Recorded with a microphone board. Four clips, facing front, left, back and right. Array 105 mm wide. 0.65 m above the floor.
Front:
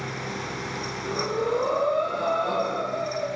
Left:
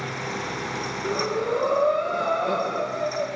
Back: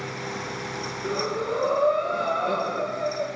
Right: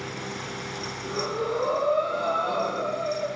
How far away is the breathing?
About 5.5 m.